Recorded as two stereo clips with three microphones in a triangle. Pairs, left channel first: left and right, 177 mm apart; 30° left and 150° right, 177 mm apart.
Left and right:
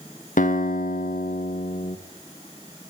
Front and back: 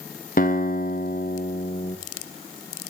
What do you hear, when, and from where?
0.4 s a guitar: 60° left, 0.7 m